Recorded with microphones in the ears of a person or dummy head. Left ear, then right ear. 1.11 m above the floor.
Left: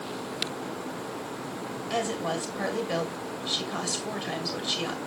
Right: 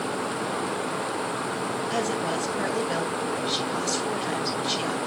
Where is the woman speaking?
10° left (ahead or behind), 2.5 m.